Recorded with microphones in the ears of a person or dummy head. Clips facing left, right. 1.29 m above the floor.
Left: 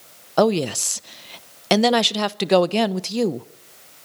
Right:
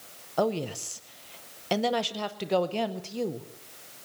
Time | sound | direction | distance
0.4 | a woman speaking | 75° left (ahead or behind) | 0.7 m